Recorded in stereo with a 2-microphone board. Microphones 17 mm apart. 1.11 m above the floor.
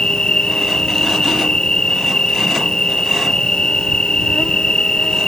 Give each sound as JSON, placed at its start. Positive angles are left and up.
{"t": 0.0, "sound": "an insect", "side_deg": 60}